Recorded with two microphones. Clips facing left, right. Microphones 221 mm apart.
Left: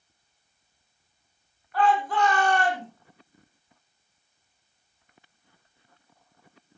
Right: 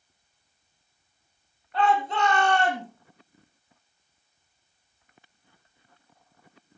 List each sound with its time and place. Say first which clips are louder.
1.7 s a shout: left 1 dB; 25° right (ahead or behind), 7 m